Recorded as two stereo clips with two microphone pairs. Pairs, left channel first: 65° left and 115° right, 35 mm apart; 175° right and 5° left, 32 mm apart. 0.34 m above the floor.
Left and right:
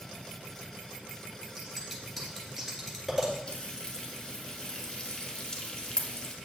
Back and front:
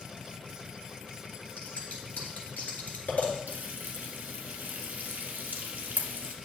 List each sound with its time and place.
1.6 s scissors: 155° left, 1.9 m
3.5 s frying: 10° left, 1.0 m